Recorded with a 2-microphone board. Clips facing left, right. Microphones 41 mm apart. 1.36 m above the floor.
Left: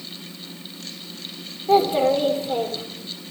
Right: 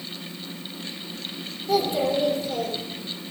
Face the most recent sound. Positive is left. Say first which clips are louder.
# left 5 dB
turn(degrees=40)  # may be behind; listen again after turning